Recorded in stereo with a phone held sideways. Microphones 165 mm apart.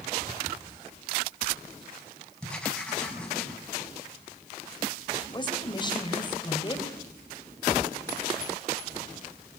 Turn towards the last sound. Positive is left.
turn(degrees=30)  # may be behind; listen again after turning